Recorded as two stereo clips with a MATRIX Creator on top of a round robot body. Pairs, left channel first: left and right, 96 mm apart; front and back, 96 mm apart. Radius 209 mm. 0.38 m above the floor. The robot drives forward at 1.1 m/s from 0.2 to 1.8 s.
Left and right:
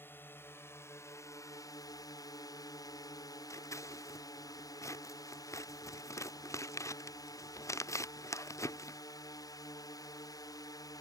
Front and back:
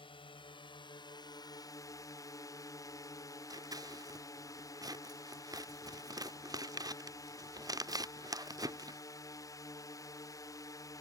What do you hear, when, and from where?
0.0 s a drone: 25° left; by 11.0 s 45° left
3.5 s scissors: 140° left